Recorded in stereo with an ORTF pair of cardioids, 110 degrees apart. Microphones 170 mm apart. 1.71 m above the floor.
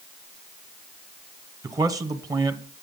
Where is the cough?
No cough in this recording.